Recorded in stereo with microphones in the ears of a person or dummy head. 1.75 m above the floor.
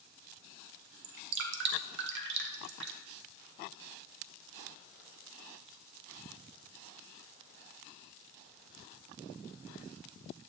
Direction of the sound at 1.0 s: 65° right (ahead or behind).